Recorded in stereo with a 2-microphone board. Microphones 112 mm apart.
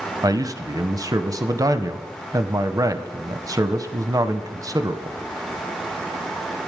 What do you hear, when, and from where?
0.2 s a man speaking: 35° right (ahead or behind), 0.6 m